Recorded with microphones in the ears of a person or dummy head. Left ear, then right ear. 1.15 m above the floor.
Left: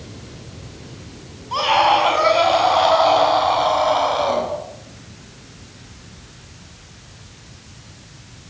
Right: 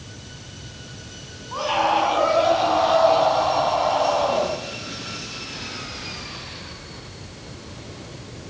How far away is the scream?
About 9.5 m.